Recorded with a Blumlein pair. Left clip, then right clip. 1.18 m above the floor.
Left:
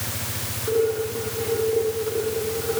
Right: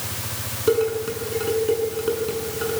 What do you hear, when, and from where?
0.7 s dishes clattering: 30° right, 8.5 m